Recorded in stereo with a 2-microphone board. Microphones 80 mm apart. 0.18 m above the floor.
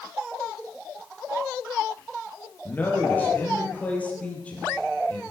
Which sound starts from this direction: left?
A man speaking, at 2.6 s.